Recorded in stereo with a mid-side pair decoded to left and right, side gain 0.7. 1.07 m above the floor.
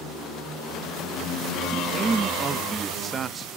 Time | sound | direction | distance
1.7 | a man speaking | 25° right | 0.9 m